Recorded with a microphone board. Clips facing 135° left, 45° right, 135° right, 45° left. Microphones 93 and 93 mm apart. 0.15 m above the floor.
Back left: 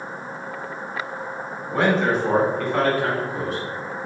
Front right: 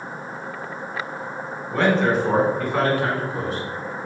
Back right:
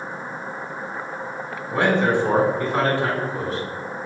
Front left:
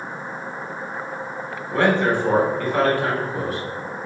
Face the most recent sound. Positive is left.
turn(degrees=-85)